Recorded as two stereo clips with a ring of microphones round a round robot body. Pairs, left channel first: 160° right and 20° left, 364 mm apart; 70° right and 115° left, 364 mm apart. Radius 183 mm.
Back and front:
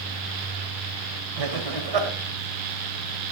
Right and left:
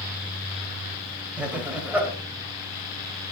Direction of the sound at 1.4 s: 25° left.